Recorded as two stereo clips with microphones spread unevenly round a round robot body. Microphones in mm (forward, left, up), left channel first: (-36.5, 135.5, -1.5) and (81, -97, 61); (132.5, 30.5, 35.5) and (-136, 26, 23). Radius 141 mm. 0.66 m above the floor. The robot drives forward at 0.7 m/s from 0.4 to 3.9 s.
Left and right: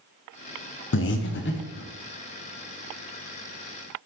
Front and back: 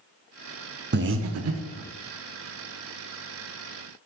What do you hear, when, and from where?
0.9 s breathing: 135° left, 0.6 m; by 1.9 s 160° left, 1.2 m